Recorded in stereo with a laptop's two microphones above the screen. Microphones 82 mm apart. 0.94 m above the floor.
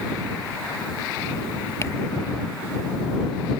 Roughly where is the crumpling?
Left.